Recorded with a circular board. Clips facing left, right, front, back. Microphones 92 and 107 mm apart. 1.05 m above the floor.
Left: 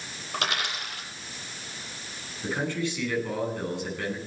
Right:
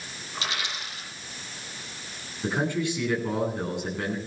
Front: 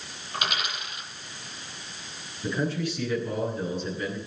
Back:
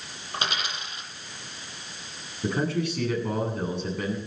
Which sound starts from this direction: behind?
A man speaking, at 2.4 s.